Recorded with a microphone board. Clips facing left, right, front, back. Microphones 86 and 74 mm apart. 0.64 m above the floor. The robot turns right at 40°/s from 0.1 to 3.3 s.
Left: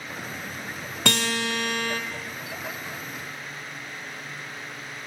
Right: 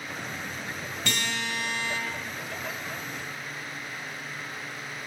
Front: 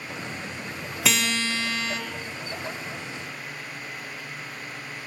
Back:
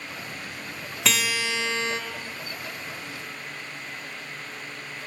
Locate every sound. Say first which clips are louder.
1.1 s a guitar: left 6 dB, front 1 dB; 90° left, 1.1 m; by 2.0 s 125° left, 1.1 m